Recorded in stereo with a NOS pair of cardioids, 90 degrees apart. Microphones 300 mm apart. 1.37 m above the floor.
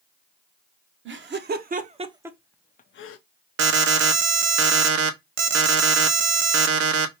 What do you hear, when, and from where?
1.1 s laughter: 40° right, 1.2 m; by 3.2 s 55° left, 0.5 m
3.6 s an alarm: 60° right, 0.8 m